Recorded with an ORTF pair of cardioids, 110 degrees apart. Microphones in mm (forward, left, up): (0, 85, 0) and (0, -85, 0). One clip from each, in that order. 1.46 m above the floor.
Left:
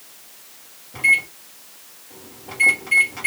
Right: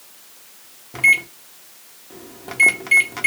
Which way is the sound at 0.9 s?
45° right.